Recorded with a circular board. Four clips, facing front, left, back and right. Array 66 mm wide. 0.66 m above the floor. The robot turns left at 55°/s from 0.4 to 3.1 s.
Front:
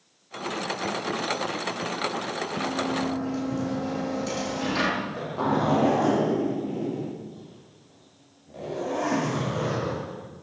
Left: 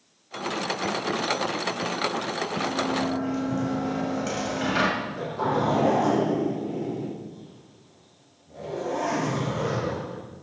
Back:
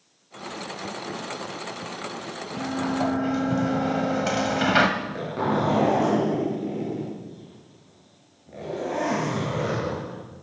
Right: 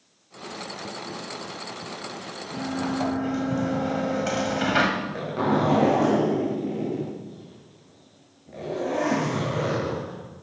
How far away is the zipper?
About 6.5 m.